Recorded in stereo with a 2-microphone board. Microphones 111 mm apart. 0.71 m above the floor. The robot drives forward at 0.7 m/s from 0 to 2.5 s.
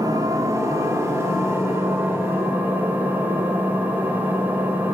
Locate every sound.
0.0 s an engine running: 35° right (ahead or behind), 1.3 m; by 5.0 s 15° right (ahead or behind), 3 m